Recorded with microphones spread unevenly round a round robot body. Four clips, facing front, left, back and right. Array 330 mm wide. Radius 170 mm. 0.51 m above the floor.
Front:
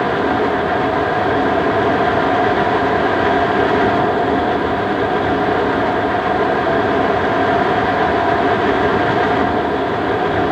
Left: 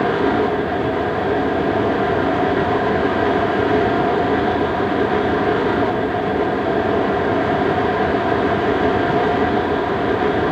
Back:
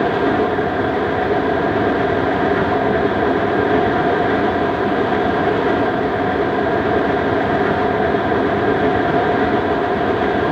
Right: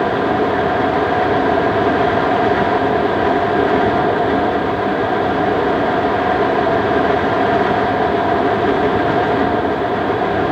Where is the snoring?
No snoring in this recording.